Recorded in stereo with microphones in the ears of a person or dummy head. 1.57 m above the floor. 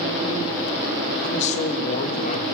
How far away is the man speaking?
About 3 m.